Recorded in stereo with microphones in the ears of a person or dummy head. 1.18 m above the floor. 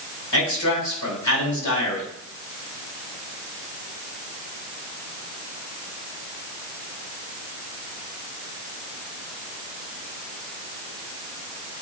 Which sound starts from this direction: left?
A man speaking, at 0.3 s.